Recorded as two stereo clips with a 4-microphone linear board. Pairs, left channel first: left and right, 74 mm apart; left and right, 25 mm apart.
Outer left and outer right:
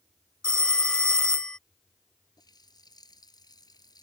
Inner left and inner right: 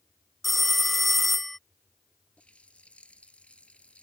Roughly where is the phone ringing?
Centre.